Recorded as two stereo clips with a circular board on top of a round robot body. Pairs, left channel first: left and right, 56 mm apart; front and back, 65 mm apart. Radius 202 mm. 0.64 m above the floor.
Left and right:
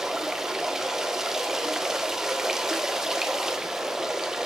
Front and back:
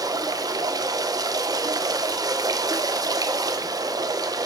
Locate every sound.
0.0 s running water: 170° right, 1.5 m